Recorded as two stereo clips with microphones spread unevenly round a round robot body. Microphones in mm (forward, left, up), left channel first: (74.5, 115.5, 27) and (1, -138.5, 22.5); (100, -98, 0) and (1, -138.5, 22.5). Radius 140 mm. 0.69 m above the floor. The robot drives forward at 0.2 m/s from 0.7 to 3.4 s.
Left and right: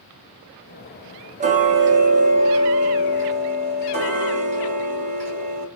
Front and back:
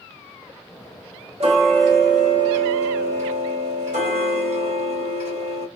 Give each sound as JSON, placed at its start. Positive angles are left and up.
{"t": 1.4, "sound": "ticking", "azimuth_deg": -160, "distance_m": 0.6}